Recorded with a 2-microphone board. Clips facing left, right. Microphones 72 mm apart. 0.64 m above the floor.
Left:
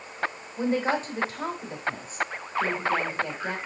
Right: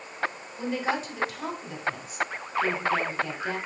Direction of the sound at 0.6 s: 40° left (ahead or behind).